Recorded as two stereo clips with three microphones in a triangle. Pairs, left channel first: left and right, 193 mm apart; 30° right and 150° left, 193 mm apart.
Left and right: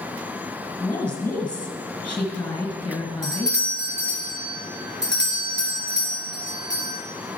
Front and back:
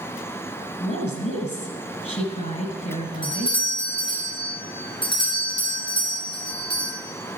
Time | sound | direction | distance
0.8 | a woman speaking | 10° left | 2 m
3.2 | a doorbell | 90° right | 3.5 m